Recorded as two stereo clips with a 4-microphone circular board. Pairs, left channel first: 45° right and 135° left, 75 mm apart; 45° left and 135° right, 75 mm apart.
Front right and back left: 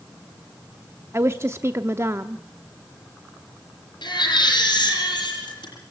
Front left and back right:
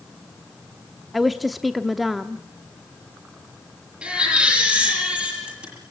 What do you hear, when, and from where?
1.1 s a woman speaking: 135° left, 0.7 m
4.0 s a baby crying: 60° right, 8.5 m